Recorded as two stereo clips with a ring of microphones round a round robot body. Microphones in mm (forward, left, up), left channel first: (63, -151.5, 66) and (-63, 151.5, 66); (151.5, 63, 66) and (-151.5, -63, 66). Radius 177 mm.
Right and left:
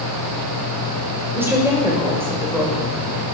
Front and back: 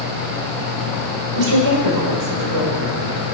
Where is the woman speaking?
165° right, 2 m.